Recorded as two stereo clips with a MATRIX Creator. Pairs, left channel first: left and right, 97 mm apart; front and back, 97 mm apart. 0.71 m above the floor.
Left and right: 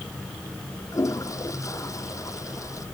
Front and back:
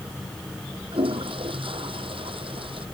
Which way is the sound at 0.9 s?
150° left.